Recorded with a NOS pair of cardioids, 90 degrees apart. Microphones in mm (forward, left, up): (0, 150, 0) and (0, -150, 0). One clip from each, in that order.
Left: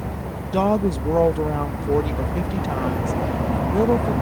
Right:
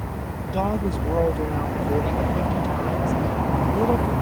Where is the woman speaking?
35° left.